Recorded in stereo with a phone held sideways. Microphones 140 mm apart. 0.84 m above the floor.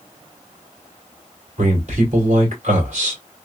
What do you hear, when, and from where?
1.6 s a man speaking: 55° right (ahead or behind), 2 m